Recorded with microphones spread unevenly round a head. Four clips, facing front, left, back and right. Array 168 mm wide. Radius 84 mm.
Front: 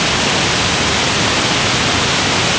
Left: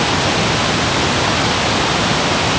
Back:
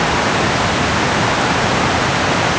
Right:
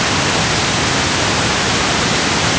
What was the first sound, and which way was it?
Only background noise.